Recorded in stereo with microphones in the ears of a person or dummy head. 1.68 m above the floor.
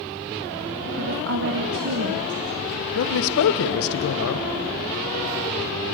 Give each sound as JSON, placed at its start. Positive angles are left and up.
{"t": 1.0, "sound": "a woman speaking", "side_deg": -60, "distance_m": 1.4}
{"t": 3.0, "sound": "a man speaking", "side_deg": 80, "distance_m": 1.4}